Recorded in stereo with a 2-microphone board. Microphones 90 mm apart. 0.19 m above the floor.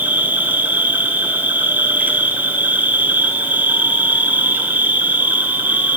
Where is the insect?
20° right (ahead or behind), 0.8 m.